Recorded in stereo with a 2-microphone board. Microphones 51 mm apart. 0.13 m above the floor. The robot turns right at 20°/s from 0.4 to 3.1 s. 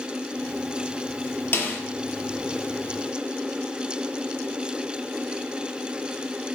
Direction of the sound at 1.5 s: 50° left (ahead or behind).